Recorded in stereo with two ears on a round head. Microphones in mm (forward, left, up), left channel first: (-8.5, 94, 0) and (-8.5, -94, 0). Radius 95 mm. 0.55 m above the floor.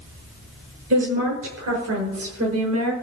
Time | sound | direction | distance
0.9 | a woman speaking | 70° right (ahead or behind) | 7.5 m